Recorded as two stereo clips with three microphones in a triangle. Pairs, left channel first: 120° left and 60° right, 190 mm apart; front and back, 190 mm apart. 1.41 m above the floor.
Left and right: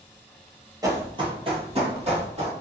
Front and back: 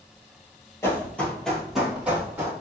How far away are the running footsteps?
About 1.4 m.